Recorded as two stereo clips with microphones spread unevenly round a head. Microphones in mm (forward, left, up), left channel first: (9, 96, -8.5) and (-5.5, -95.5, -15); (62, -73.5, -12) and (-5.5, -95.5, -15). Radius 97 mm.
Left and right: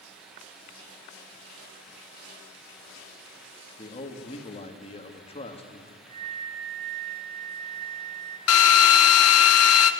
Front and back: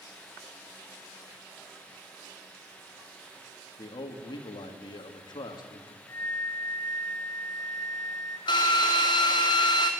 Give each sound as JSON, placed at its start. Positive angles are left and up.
{"t": 3.8, "sound": "a man speaking", "azimuth_deg": 25, "distance_m": 2.5}
{"t": 6.1, "sound": "a flute", "azimuth_deg": -45, "distance_m": 7.5}
{"t": 8.5, "sound": "a drill", "azimuth_deg": 75, "distance_m": 1.0}